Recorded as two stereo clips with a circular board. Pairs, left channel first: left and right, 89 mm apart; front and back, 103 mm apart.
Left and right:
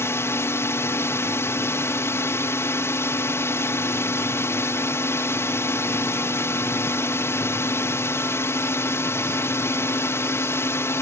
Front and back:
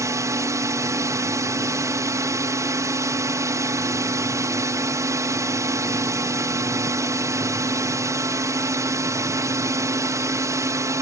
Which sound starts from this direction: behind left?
A drone, at 0.0 s.